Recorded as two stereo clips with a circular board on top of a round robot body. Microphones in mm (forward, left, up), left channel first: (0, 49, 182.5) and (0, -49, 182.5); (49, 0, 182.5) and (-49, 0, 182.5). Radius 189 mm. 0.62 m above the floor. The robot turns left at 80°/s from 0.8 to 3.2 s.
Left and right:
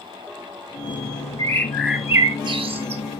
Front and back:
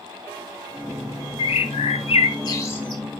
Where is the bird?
40° left, 0.9 m; by 3.0 s 90° right, 0.9 m.